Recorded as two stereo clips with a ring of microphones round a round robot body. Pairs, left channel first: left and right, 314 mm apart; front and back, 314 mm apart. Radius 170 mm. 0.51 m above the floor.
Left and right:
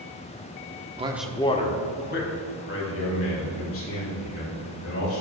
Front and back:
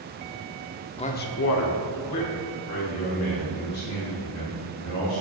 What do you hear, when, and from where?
1.0 s a man speaking: 50° right, 0.8 m; by 5.2 s 45° left, 6 m